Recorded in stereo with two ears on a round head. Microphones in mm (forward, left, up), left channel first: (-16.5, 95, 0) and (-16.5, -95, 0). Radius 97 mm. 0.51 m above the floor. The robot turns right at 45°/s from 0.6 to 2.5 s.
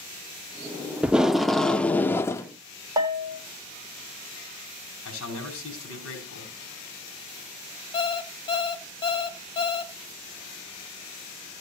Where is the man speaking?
80° left, 5.5 m.